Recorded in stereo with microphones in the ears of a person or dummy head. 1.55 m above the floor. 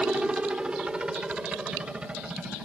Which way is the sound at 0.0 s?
5° right (ahead or behind).